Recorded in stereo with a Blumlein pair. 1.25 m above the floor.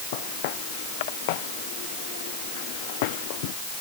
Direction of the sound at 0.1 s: 50° left.